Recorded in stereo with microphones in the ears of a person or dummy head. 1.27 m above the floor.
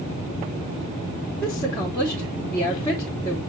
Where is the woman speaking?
15° left (ahead or behind), 2 m.